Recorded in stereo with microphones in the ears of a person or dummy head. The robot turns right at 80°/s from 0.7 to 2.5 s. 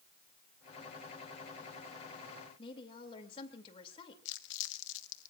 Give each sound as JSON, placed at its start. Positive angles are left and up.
{"t": 2.6, "sound": "a woman speaking", "side_deg": 30, "distance_m": 2.5}
{"t": 4.2, "sound": "crumpling", "side_deg": 70, "distance_m": 1.0}